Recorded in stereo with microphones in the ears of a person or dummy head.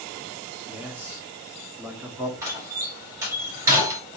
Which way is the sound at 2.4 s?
10° right (ahead or behind).